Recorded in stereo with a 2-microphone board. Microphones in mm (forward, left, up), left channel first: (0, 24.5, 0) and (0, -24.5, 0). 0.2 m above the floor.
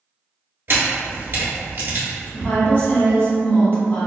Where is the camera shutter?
50° right (ahead or behind), 1.2 m.